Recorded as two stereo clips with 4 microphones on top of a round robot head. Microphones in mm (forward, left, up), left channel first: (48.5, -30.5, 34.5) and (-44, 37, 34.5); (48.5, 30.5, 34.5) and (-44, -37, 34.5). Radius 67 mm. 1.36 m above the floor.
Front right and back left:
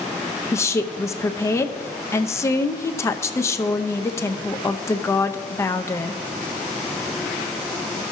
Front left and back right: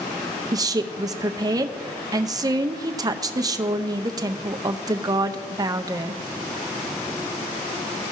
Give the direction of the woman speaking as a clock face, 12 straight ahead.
3 o'clock.